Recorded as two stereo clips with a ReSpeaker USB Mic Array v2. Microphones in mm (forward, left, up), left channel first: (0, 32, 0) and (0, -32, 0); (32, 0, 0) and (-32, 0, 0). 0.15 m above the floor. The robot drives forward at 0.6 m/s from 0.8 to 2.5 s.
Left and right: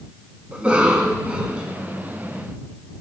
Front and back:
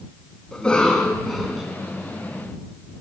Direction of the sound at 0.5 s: 55° right.